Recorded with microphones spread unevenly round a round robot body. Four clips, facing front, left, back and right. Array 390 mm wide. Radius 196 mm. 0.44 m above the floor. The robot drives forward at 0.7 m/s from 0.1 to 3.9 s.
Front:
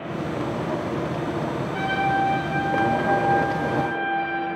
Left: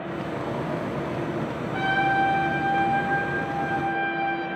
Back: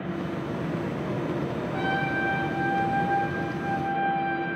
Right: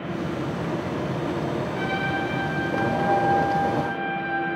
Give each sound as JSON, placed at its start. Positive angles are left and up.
{"t": 1.7, "sound": "a trumpet", "azimuth_deg": 70, "distance_m": 7.0}